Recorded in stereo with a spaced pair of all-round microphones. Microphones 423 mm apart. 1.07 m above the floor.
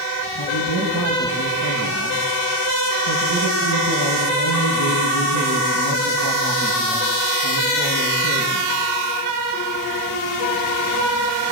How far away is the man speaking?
About 6 m.